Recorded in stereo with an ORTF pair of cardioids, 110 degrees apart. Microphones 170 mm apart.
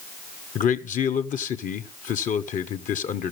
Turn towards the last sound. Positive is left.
turn(degrees=45)